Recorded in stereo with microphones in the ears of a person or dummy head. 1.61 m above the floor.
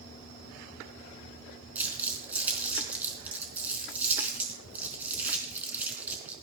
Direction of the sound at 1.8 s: 10° right (ahead or behind).